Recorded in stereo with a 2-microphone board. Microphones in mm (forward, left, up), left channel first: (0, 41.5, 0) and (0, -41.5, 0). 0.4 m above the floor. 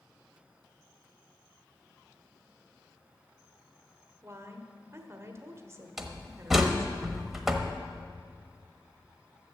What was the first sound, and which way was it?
A woman speaking, 35° right (ahead or behind).